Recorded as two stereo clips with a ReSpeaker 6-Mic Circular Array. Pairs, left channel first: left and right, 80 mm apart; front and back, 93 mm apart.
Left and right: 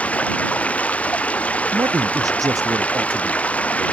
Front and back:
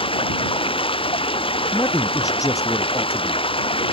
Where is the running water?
15° left.